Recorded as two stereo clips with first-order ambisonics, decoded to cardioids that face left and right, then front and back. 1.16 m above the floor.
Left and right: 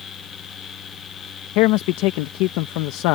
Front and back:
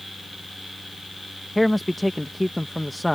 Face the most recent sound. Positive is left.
turn(degrees=85)